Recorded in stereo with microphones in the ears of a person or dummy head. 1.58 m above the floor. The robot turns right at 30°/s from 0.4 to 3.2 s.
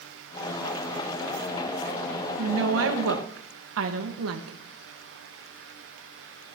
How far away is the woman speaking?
About 1.5 m.